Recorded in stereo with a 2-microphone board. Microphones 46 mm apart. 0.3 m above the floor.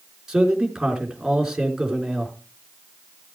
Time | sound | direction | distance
0.3 | a man speaking | 10° right (ahead or behind) | 4 m